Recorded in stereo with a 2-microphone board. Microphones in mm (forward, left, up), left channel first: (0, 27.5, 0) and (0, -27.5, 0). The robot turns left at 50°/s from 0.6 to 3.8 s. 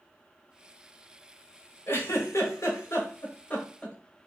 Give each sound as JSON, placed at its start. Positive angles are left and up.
{"t": 1.9, "sound": "a giggle", "side_deg": 50, "distance_m": 1.2}